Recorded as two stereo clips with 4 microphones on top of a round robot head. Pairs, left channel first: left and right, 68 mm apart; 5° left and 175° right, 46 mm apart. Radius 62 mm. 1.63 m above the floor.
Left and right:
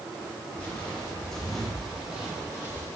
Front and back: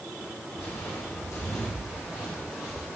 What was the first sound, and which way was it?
Footsteps, 20° left.